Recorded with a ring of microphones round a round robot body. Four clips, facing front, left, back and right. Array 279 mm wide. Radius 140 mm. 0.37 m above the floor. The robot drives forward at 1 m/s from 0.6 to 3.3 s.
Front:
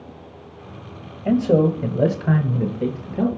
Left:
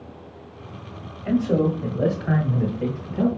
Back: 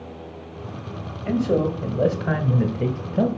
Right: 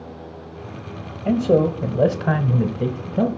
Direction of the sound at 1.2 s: 45° right.